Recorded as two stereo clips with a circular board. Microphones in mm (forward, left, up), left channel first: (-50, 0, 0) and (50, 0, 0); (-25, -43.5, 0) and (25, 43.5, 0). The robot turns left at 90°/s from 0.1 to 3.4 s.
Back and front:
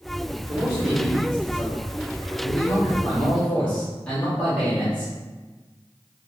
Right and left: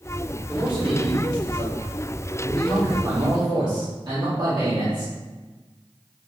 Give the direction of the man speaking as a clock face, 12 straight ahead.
12 o'clock.